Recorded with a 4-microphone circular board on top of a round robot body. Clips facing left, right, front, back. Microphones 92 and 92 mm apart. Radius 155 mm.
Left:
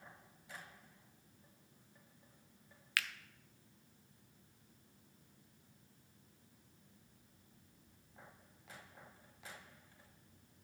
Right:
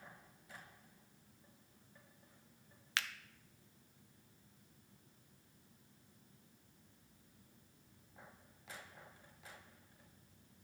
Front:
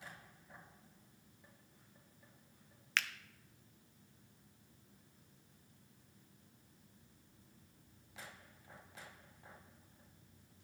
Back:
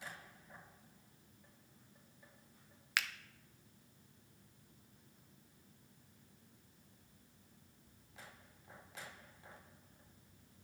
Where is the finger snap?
110° right, 0.7 m.